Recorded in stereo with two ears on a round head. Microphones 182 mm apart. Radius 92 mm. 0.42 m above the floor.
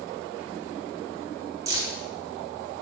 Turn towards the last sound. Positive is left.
turn(degrees=-15)  # may be behind; listen again after turning